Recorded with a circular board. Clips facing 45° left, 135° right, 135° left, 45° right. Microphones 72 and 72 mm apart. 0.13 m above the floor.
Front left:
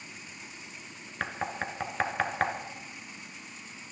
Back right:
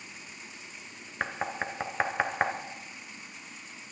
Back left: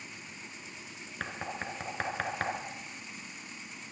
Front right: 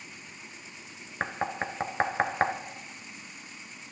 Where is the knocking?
65° right, 1.1 m.